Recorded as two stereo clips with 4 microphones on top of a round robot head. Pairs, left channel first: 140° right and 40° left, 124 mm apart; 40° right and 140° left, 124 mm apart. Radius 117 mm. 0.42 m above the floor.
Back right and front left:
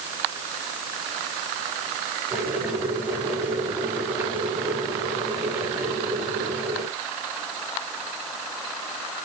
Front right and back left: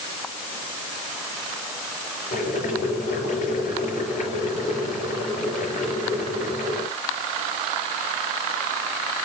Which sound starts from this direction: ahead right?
Boiling, at 2.3 s.